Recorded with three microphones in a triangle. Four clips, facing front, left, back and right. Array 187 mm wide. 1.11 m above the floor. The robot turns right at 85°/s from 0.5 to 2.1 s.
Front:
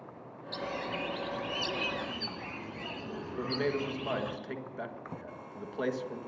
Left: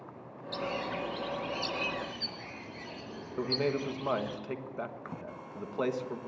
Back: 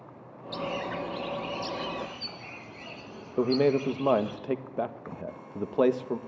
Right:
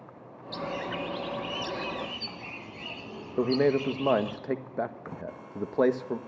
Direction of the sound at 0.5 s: 150° right.